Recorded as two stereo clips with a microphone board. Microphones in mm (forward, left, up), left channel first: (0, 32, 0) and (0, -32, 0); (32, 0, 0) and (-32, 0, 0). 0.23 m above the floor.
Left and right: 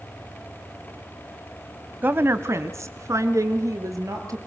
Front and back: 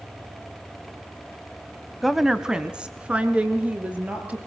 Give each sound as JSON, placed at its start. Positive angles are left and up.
{"t": 2.0, "sound": "a woman speaking", "azimuth_deg": -90, "distance_m": 1.2}